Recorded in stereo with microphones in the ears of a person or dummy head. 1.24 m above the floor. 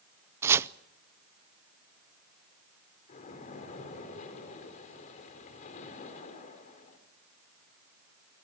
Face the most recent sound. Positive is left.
turn(degrees=40)  # may be behind; listen again after turning